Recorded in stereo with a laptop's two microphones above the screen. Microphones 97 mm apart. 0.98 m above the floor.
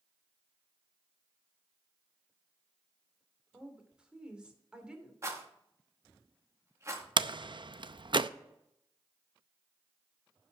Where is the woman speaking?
10° right (ahead or behind), 2.5 m.